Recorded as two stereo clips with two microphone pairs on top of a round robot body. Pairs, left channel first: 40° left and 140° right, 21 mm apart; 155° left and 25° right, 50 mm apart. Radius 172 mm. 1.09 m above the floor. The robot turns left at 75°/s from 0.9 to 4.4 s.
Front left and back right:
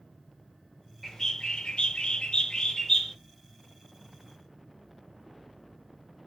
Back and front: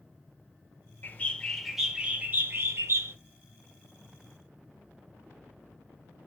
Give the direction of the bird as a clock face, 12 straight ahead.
8 o'clock.